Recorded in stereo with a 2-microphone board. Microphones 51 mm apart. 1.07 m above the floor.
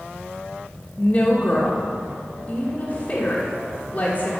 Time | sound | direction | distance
1.0 | a woman speaking | 30° left (ahead or behind) | 1.1 m